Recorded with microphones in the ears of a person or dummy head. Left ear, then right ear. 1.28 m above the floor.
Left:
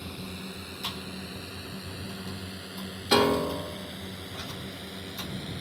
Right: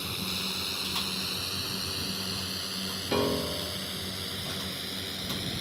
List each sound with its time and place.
0.0 s a drone: 35° right (ahead or behind); by 5.6 s 20° right (ahead or behind)
3.1 s a piano: 65° left (ahead or behind)